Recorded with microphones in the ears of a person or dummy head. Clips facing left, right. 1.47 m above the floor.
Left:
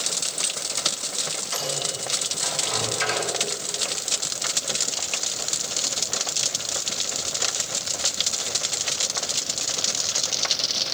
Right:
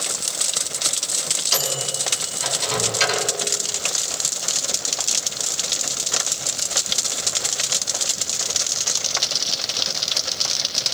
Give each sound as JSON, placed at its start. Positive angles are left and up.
{"t": 1.5, "sound": "a microwave", "side_deg": -55, "distance_m": 8.0}